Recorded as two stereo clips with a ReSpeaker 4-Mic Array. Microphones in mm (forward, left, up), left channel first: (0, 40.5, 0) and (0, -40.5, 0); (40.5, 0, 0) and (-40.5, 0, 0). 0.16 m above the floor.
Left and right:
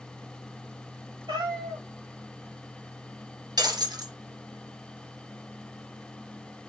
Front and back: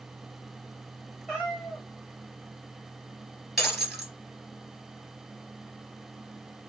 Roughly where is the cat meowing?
Right.